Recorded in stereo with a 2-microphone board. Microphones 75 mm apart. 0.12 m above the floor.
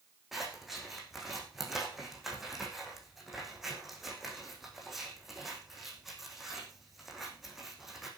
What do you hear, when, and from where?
0.3 s scissors: 5° right (ahead or behind), 4.5 m